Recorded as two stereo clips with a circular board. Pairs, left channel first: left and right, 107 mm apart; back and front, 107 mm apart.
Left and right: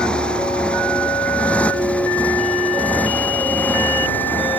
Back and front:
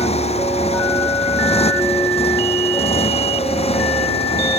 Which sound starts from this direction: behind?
A motorcycle, at 0.0 s.